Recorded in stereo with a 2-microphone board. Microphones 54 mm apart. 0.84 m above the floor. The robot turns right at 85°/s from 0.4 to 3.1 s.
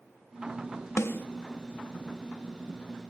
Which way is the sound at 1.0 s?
55° left (ahead or behind).